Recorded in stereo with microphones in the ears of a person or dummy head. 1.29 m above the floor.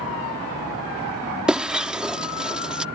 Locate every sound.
1.5 s breaking glass: 5° right (ahead or behind)